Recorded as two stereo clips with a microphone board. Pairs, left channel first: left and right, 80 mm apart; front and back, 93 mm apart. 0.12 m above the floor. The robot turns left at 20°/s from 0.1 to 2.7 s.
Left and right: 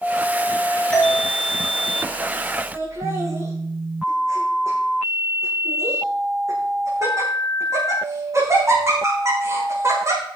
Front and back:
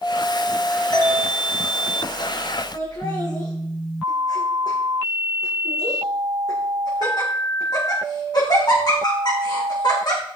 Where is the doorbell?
10° left, 3.5 m; by 1.2 s 5° left, 3.5 m.